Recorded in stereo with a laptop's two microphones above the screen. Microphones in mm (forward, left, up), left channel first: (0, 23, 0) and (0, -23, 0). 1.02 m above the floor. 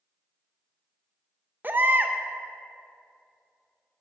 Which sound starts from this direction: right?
A baby crying, at 1.6 s.